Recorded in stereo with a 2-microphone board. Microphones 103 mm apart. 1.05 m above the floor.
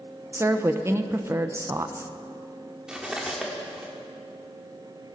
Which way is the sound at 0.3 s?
25° right (ahead or behind).